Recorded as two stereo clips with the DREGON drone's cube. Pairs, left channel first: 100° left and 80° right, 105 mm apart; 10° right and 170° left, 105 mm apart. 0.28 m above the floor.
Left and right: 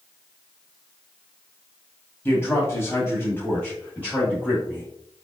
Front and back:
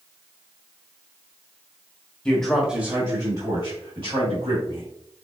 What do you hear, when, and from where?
2.2 s a man speaking: 60° left, 1.6 m; by 4.9 s 175° left, 3.5 m